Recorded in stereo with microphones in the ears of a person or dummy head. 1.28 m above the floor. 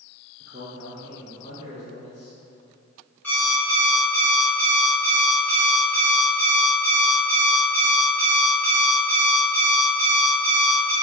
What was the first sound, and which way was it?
A man speaking, 45° right (ahead or behind).